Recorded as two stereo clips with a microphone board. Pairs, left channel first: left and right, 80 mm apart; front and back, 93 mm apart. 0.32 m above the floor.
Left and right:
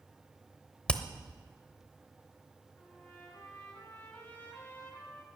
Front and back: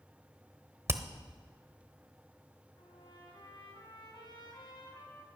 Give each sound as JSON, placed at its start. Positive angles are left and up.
{"t": 0.9, "sound": "hammering", "azimuth_deg": 155, "distance_m": 0.9}
{"t": 2.8, "sound": "a trumpet", "azimuth_deg": 25, "distance_m": 3.5}